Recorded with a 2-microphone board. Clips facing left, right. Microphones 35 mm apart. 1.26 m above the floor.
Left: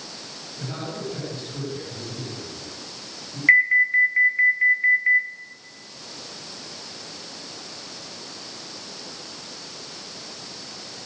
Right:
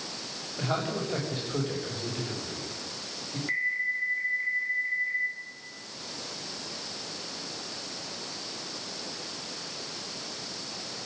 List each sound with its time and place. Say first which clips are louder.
0.6 s a man speaking: right 2 dB; 55° right (ahead or behind), 7 m
3.5 s an alarm: left 13 dB; 65° left (ahead or behind), 3.5 m